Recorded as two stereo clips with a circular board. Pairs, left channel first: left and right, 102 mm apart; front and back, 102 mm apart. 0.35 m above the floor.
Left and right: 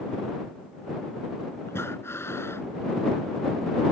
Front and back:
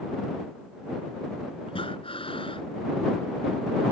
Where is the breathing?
25° left.